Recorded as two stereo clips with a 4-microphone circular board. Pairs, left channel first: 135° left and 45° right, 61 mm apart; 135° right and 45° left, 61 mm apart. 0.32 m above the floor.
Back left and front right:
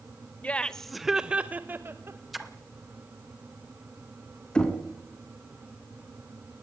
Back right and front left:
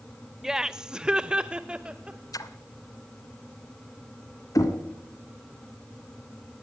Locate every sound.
0.4 s laughter: 120° left, 0.9 m; by 2.2 s 25° right, 1.2 m
2.3 s a splash: 130° right, 1.5 m
4.5 s knocking: 150° right, 3 m